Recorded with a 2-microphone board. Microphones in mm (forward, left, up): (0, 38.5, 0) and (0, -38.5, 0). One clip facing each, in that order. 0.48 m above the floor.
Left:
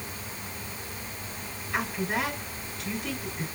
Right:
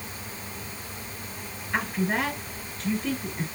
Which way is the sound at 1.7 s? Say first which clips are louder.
Right 3 dB; 30° right (ahead or behind).